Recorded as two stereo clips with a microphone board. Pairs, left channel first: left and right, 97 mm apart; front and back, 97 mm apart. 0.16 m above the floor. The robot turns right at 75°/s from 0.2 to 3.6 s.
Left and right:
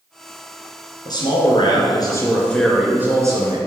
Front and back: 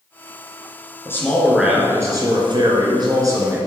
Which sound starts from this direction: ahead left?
A man speaking, at 1.1 s.